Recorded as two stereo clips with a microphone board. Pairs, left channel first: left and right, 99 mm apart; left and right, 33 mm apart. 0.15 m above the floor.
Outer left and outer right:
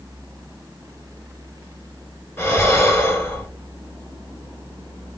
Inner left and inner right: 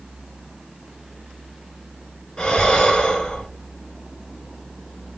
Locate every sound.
2.4 s breathing: 30° left (ahead or behind), 0.8 m